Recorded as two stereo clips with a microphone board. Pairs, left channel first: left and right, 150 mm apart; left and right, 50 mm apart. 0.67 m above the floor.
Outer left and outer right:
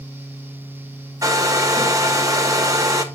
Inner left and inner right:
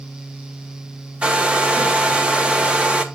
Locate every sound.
1.2 s a hair dryer: 25° right (ahead or behind), 0.8 m